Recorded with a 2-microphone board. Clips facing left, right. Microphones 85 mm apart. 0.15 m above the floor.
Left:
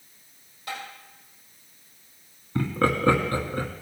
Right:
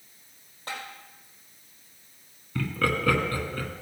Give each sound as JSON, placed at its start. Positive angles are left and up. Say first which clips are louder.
{"t": 0.7, "sound": "tapping", "louder": "left 2 dB", "side_deg": -40, "distance_m": 5.0}
{"t": 2.5, "sound": "laughter", "louder": "left 4 dB", "side_deg": 30, "distance_m": 1.4}